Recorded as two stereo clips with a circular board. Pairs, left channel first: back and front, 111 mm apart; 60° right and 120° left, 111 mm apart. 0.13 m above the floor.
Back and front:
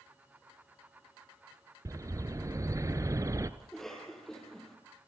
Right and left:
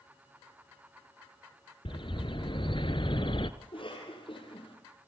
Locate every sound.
1.9 s a bird: 50° right, 0.9 m
3.6 s a cough: 95° right, 5 m